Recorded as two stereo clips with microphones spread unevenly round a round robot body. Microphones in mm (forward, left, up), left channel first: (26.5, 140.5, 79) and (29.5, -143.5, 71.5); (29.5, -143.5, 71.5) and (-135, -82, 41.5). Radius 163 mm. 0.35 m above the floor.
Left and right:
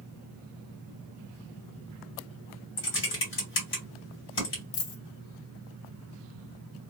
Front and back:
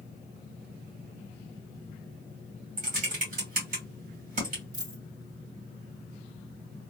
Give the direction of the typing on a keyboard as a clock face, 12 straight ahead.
8 o'clock.